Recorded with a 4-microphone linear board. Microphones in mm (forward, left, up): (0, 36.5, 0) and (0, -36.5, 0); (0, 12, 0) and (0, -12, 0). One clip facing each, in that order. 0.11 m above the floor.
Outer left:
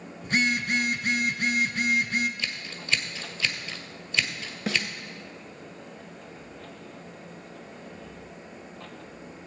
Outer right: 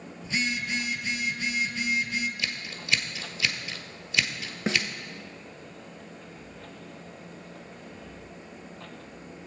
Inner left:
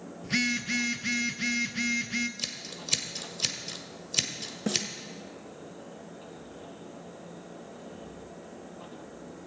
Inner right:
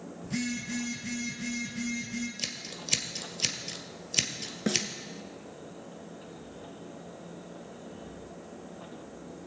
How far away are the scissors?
About 1.1 m.